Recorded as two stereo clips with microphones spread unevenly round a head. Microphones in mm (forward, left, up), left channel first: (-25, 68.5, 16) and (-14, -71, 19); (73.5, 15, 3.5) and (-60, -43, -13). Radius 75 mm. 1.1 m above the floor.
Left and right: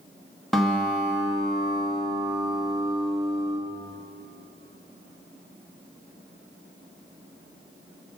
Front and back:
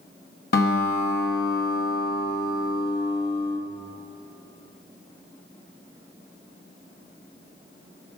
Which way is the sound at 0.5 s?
5° left.